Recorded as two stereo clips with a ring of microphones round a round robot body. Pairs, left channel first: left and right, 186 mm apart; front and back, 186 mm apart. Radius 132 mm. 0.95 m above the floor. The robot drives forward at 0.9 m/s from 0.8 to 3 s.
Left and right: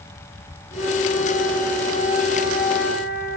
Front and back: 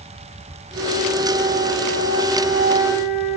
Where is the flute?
165° left, 4.5 m; by 3.4 s 170° left, 6 m.